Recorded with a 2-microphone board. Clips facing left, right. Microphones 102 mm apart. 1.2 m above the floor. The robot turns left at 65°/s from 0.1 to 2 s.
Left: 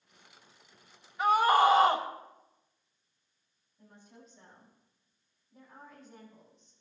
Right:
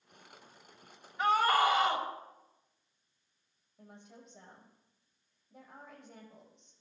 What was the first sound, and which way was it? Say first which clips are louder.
A scream: left 4 dB; straight behind.